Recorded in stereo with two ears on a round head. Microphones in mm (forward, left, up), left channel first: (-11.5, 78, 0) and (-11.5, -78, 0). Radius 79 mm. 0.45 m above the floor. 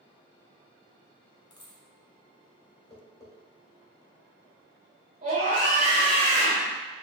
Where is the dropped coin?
25° left (ahead or behind), 1.0 m.